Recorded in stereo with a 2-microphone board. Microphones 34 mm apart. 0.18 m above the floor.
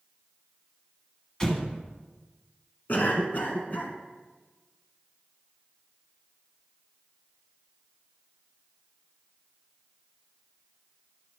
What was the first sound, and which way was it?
An explosion, 20° left (ahead or behind).